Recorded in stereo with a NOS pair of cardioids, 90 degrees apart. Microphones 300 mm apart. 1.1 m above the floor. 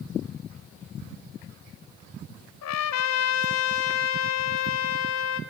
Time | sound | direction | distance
2.6 | a trumpet | 65° left | 2 m